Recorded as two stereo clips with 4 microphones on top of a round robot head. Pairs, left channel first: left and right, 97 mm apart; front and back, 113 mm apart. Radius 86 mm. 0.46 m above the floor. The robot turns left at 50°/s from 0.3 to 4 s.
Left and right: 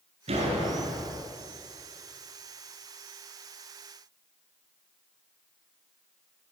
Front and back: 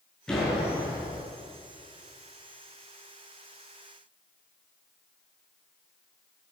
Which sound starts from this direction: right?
A door slam, at 0.3 s.